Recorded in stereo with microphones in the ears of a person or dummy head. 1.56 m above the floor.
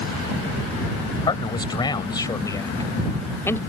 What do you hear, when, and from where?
1.3 s a man speaking: 25° left (ahead or behind); by 3.6 s 15° left (ahead or behind)